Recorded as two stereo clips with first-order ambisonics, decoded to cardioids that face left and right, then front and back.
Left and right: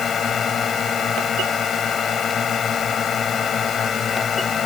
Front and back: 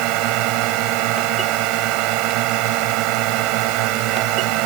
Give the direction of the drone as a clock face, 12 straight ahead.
7 o'clock.